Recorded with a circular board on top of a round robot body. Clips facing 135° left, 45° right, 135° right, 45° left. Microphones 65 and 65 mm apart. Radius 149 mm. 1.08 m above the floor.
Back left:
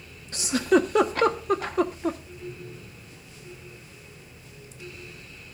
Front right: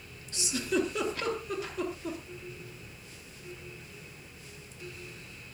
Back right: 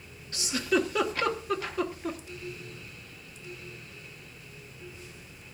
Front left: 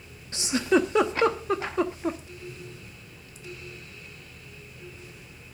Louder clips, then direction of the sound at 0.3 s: Back left 9 dB, front left 4 dB; 105° left.